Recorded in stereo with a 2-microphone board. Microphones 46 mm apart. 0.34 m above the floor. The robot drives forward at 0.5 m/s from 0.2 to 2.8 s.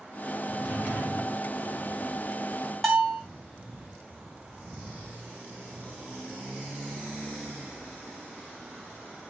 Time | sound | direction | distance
0.5 | a drawer | 50° left (ahead or behind) | 3.5 m
2.8 | a bell | 10° left (ahead or behind) | 3.5 m